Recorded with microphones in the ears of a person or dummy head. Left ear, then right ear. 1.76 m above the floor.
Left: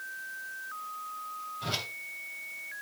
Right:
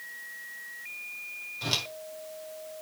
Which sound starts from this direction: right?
A whoosh, at 1.6 s.